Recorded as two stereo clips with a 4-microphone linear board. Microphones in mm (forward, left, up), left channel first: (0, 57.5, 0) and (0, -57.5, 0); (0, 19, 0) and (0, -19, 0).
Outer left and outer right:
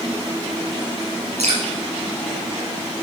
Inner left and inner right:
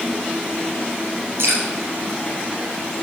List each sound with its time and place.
1.4 s dripping: 65° right (ahead or behind), 5 m